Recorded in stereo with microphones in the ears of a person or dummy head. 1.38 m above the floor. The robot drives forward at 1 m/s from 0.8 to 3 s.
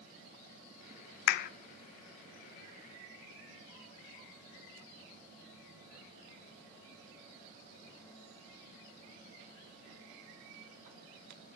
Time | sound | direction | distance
1.3 | a clap | 60° left (ahead or behind) | 0.7 m